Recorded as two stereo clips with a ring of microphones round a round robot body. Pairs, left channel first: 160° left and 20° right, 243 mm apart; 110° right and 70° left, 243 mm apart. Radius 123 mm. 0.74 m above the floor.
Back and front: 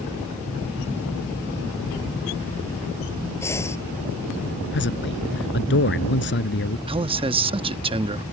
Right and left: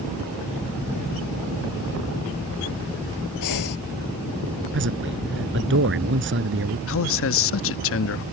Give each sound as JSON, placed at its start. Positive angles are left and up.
{"t": 3.4, "sound": "breathing", "azimuth_deg": -125}
{"t": 4.7, "sound": "a man speaking", "azimuth_deg": 110}
{"t": 6.9, "sound": "a man speaking", "azimuth_deg": -90}